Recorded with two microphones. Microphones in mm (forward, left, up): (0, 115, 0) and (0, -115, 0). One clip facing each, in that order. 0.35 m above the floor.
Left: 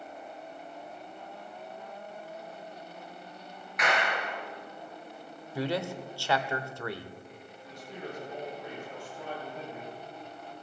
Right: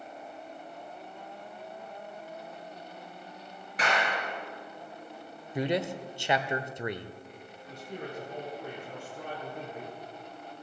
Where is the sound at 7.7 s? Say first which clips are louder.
Right 1 dB; 60° right (ahead or behind), 6.5 m.